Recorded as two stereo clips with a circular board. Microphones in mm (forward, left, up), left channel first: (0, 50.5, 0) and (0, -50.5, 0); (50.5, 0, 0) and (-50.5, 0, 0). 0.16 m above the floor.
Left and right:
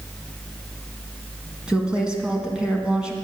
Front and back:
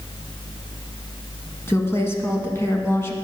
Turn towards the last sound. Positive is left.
turn(degrees=-20)